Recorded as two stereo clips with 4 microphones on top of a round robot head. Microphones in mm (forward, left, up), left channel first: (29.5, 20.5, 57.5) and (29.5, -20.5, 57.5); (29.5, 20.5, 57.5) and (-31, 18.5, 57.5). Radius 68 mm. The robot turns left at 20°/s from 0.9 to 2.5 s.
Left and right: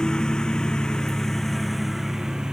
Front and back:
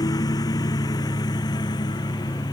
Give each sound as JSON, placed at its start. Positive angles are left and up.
{"t": 0.0, "sound": "a lawn mower", "azimuth_deg": 20}